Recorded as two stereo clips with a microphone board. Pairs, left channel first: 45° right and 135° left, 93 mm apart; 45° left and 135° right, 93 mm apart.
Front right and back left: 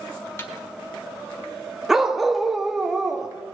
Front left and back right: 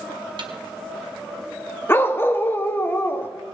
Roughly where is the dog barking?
Ahead left.